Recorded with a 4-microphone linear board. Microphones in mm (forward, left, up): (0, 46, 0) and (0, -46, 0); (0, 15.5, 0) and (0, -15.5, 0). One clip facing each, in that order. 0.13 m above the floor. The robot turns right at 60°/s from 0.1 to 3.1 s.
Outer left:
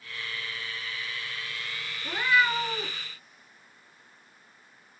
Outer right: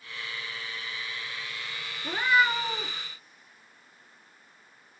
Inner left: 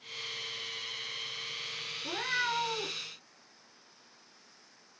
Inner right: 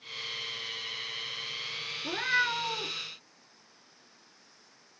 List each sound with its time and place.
2.0 s a cat meowing: 40° right, 0.7 m; by 3.0 s 15° left, 0.7 m